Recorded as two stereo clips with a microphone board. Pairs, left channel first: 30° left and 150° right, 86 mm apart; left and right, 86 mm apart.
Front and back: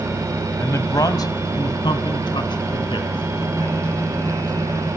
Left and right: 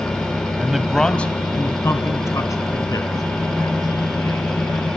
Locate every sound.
0.6 s a man speaking: 15° right, 1.5 m; by 4.9 s 55° left, 5 m